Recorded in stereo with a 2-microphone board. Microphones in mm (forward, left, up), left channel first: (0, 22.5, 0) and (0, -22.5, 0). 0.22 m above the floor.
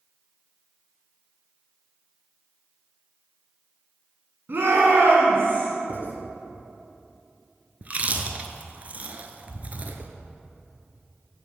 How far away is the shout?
About 1.8 m.